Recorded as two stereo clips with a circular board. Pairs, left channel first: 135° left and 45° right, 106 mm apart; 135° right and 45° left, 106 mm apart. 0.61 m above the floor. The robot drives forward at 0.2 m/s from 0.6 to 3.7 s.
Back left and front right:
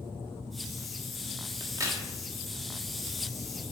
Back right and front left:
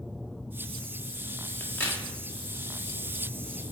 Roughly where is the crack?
Right.